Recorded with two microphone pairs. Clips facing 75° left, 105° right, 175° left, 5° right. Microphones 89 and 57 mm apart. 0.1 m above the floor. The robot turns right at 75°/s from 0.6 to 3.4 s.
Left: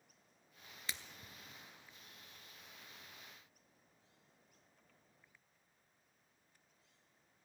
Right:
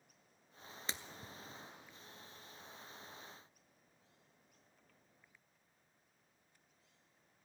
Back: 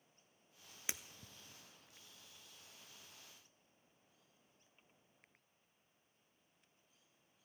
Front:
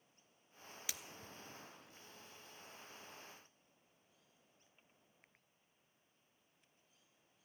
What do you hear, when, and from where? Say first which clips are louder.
0.9 s breaking glass: right 2 dB, back 3 dB; 140° right, 0.6 m; by 1.3 s 110° right, 0.6 m